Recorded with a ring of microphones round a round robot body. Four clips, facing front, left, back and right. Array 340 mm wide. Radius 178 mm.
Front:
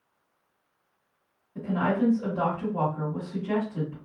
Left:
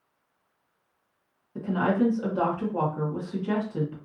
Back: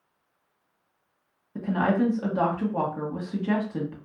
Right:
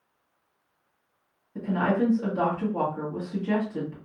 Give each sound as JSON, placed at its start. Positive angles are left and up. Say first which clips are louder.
{"t": 1.6, "sound": "a woman speaking", "louder": "even, back 2 dB", "azimuth_deg": 170, "distance_m": 1.5}